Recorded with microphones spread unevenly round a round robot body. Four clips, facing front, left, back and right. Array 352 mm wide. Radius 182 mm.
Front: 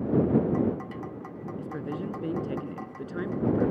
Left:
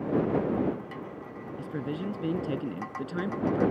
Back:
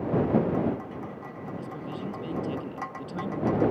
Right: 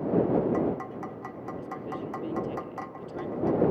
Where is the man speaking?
70° left; by 3.7 s 80° left.